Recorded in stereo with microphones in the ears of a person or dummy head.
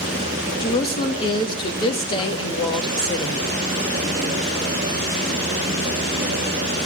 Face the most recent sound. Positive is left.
turn(degrees=30)  # may be behind; listen again after turning